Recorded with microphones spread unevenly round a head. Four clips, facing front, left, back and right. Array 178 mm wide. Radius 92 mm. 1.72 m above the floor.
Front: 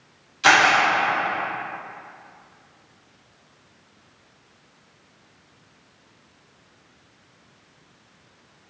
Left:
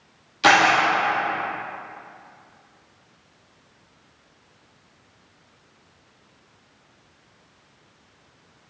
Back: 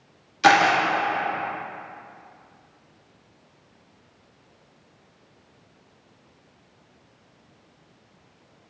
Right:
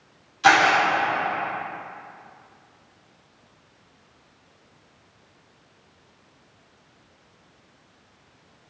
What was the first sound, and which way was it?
A camera shutter, 145° left.